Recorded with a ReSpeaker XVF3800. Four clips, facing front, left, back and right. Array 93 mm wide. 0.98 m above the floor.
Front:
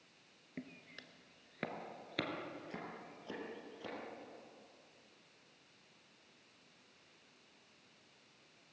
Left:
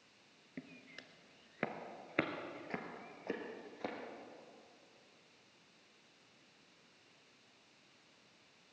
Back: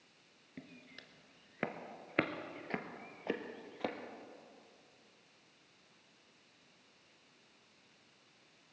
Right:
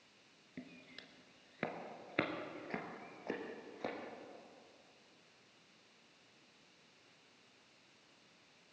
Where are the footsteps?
40° left, 1.0 m; by 4.0 s 175° right, 1.9 m.